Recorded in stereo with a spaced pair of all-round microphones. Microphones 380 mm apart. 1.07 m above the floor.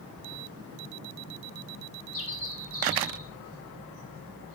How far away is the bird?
About 8 m.